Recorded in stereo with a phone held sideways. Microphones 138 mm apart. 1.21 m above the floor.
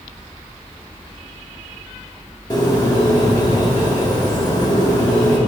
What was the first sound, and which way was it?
A bird, 30° left (ahead or behind).